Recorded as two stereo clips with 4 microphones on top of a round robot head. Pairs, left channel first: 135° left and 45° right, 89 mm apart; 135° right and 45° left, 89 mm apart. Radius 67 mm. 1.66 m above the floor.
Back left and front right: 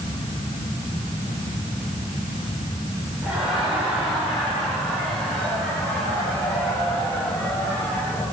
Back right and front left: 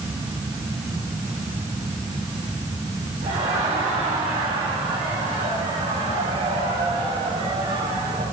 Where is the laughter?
35° left, 7.5 m; by 8.2 s 65° left, 12.5 m.